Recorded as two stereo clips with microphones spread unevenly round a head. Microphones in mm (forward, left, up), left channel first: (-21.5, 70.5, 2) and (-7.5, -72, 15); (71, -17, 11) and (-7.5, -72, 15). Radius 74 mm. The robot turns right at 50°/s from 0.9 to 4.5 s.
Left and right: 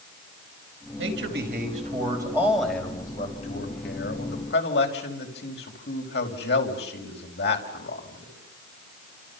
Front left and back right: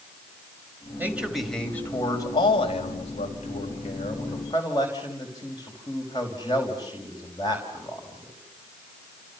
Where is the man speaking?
75° right, 5 m; by 8.3 s 100° left, 5 m.